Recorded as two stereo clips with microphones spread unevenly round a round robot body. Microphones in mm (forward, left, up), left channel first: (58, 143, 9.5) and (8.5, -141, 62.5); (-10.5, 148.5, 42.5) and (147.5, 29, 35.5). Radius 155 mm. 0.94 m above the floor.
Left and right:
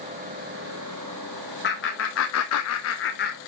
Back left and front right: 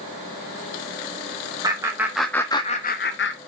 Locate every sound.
1.6 s laughter: 35° left, 1.4 m; by 3.4 s 135° left, 1.0 m